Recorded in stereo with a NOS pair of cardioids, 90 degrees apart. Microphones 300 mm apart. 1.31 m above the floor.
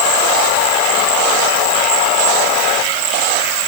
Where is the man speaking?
No man speaking in this recording.